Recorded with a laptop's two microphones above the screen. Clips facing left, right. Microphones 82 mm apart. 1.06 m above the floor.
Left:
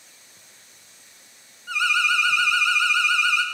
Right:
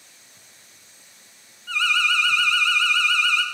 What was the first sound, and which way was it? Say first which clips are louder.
An alarm: left 1 dB; 15° left (ahead or behind).